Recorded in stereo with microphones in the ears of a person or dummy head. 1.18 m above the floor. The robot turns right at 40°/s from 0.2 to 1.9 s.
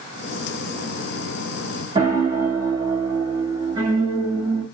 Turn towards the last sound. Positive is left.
turn(degrees=-25)  # may be behind; listen again after turning